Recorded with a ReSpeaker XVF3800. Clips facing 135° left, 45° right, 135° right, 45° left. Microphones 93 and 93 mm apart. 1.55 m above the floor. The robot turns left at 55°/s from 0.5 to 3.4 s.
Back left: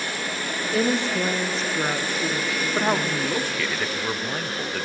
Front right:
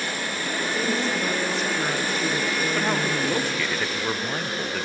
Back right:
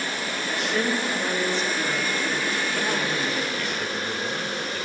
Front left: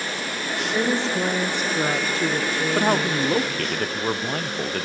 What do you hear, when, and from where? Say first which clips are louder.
0.7 s a woman speaking: back left 5 dB, front left 4 dB; 130° left, 0.9 m; by 3.7 s 20° right, 0.9 m
2.8 s a man speaking: back left 4 dB, front left 5 dB; 75° left, 0.5 m; by 4.8 s 40° left, 0.5 m